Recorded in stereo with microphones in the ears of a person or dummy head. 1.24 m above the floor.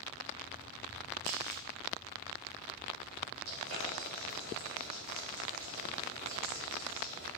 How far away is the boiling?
About 3.5 m.